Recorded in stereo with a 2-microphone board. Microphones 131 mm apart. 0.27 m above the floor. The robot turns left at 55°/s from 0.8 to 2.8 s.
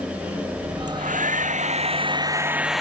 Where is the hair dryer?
75° right; by 2.8 s straight behind.